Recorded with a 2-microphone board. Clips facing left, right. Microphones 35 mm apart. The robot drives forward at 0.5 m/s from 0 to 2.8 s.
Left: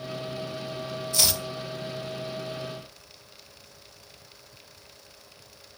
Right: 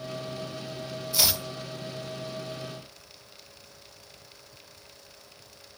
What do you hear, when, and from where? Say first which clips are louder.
1.1 s chopping: even; 5° right (ahead or behind), 0.6 m; by 1.4 s 10° right (ahead or behind), 0.5 m